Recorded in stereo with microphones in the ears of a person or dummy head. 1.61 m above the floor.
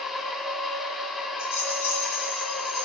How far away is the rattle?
About 8 m.